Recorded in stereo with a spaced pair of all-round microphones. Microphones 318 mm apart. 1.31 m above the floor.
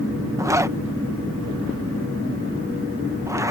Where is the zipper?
10° right (ahead or behind).